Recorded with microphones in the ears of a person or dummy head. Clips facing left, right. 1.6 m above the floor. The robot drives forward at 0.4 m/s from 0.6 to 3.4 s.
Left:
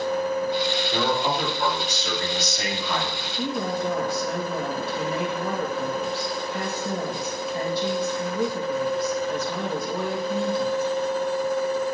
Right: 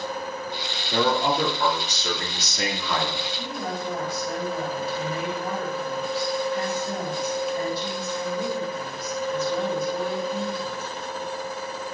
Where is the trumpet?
I don't hear a trumpet.